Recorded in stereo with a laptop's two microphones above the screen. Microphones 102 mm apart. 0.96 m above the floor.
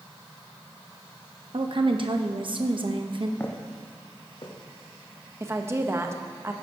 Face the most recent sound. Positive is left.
turn(degrees=-25)  # may be behind; listen again after turning